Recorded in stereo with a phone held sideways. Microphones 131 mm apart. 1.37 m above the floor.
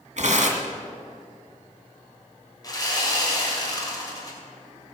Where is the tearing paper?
60° right (ahead or behind), 1.9 m.